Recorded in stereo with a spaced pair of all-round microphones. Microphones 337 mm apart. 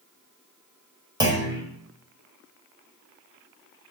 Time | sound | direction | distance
1.2 | a clunk | 10° right (ahead or behind) | 1.9 m